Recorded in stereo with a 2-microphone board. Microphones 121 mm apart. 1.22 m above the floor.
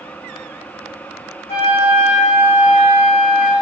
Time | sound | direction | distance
1.5 | a flute | 60° left (ahead or behind) | 2.5 m